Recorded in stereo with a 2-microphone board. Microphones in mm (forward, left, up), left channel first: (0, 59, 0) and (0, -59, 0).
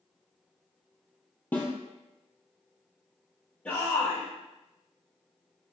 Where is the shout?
10° left (ahead or behind), 2.5 m.